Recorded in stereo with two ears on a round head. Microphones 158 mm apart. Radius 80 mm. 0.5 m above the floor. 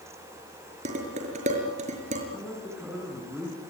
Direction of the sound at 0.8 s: 40° right (ahead or behind).